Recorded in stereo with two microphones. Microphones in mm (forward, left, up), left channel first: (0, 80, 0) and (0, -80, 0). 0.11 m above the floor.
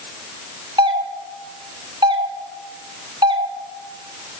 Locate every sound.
0.8 s a doorbell: 30° right (ahead or behind), 2 m